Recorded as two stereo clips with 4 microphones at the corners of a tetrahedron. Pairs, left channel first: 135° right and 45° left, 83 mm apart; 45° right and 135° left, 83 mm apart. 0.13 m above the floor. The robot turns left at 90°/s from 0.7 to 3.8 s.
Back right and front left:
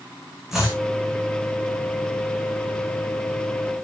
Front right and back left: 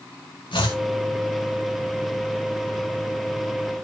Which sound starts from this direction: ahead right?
Chopping, at 0.5 s.